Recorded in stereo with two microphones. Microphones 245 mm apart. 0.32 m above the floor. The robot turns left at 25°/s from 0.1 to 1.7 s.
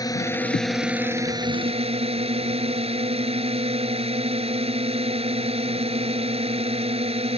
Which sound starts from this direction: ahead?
A drone, at 0.0 s.